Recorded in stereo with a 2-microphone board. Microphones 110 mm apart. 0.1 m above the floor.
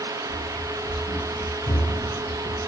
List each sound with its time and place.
0.3 s running footsteps: 50° left (ahead or behind), 1.8 m; by 2.6 s 85° left, 1.6 m